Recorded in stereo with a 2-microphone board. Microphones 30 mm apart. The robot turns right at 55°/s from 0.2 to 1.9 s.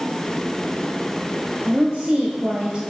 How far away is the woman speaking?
About 1.4 m.